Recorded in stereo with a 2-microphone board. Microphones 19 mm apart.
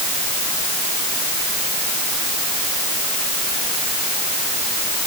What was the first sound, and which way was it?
Only background noise.